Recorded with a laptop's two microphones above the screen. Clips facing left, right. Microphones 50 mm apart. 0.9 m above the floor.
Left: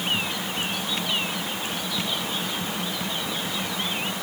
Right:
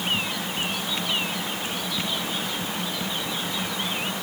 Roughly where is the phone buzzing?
I don't hear a phone buzzing.